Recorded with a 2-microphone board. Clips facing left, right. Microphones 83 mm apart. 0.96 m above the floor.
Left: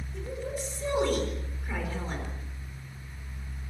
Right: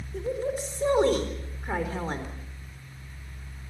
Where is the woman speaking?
40° right (ahead or behind), 4 m.